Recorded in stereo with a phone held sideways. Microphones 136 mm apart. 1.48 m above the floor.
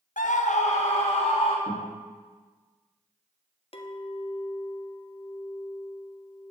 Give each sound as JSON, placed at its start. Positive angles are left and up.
{"t": 0.2, "sound": "a scream", "side_deg": 75, "distance_m": 0.6}
{"t": 1.7, "sound": "a guitar", "side_deg": 55, "distance_m": 3.5}
{"t": 3.7, "sound": "a clink", "side_deg": 45, "distance_m": 0.6}